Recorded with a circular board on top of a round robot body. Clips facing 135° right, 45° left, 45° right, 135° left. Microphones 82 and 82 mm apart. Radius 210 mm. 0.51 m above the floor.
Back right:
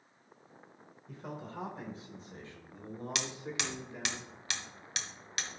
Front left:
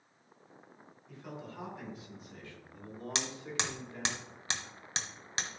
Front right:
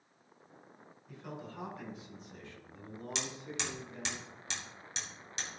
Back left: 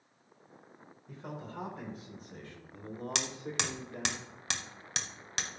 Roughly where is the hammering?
Left.